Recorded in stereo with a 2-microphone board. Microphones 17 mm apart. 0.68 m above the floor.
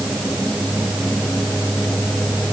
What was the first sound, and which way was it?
Only background noise.